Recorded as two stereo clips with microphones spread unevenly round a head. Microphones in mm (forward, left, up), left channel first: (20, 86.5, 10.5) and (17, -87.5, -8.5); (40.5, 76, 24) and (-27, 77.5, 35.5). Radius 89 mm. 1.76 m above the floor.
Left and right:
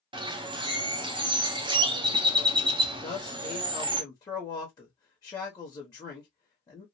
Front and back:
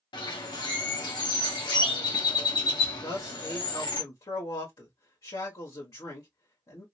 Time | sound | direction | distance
0.1 | a bird | 25° right | 0.7 m
3.0 | a man speaking | 25° left | 1.1 m